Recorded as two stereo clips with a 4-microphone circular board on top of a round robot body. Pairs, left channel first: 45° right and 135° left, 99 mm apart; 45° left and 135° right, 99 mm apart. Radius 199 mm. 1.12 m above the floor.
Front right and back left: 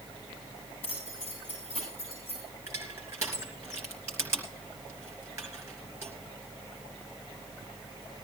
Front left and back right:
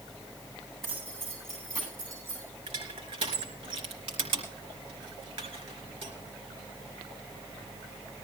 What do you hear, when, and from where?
0.8 s keys jangling: 70° right, 9 m; by 2.5 s 65° right, 10 m
2.7 s crushing: 160° right, 2.5 m